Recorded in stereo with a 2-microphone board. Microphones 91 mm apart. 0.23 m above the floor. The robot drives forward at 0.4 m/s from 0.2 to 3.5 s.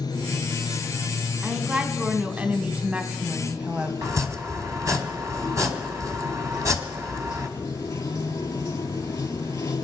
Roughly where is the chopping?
Right.